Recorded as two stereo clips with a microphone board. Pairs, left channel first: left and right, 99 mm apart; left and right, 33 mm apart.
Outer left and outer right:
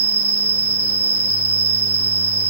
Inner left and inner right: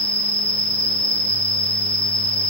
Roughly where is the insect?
Left.